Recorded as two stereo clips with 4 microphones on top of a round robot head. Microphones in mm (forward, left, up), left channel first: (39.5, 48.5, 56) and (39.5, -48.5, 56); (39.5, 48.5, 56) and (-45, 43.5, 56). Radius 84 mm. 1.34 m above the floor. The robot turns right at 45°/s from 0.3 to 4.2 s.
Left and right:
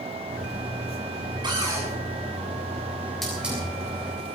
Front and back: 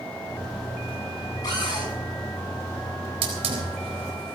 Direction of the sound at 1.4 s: 50° right.